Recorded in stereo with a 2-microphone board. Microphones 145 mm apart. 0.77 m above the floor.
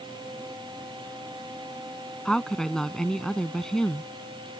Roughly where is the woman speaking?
Centre.